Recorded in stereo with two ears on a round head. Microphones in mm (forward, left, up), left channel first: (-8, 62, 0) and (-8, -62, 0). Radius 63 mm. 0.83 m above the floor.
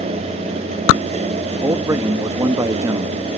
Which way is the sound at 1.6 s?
20° right (ahead or behind).